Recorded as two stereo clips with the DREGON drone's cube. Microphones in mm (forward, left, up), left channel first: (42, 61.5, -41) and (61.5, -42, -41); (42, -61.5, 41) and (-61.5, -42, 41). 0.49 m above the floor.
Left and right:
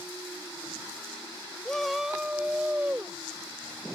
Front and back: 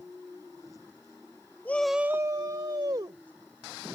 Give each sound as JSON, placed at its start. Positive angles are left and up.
{"t": 1.6, "sound": "a shout", "azimuth_deg": 30}